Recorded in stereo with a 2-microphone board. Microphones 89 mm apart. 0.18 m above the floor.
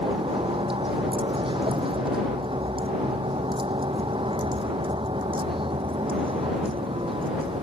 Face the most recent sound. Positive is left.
turn(degrees=-80)